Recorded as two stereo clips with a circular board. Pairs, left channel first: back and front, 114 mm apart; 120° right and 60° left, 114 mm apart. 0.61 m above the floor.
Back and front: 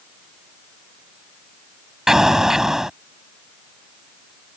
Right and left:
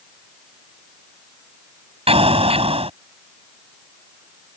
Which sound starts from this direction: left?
An explosion, at 2.1 s.